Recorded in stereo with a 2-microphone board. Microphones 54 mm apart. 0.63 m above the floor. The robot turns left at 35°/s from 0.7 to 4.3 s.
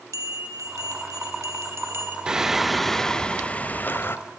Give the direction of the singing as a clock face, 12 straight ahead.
5 o'clock.